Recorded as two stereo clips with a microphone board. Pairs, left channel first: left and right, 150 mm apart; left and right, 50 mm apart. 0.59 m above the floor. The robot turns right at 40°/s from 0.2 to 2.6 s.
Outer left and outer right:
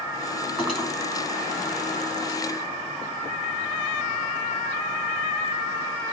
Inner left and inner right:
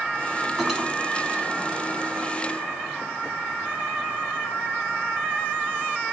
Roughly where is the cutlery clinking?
Centre.